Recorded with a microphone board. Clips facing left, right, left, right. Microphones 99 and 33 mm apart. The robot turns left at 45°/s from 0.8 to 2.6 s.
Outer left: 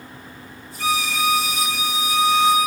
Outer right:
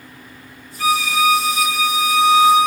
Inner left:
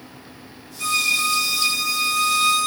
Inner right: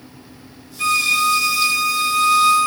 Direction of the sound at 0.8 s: 60° right.